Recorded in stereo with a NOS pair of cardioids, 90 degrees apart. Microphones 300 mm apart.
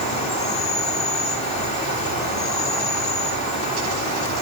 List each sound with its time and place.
0.0 s an insect: 65° left, 2.5 m